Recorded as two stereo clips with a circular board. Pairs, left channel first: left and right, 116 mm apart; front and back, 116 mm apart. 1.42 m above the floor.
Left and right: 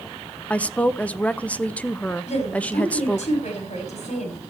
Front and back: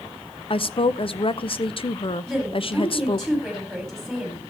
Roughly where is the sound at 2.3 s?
Left.